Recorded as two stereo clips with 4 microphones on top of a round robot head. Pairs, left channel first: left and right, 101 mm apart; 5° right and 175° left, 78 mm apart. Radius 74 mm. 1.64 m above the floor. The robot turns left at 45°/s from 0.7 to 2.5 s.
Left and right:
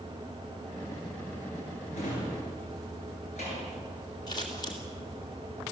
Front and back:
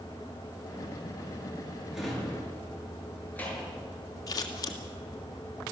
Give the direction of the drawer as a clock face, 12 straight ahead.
9 o'clock.